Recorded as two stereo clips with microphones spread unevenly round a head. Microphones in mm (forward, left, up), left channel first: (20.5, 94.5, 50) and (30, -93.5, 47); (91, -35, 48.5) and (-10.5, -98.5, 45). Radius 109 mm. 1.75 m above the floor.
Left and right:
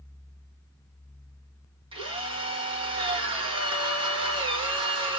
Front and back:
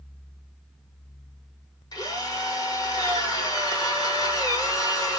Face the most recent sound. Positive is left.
turn(degrees=-20)